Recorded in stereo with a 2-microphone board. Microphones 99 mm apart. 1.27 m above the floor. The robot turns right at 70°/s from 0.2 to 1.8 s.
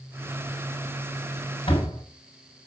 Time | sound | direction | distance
1.7 | a door slam | 65° left (ahead or behind) | 6.5 m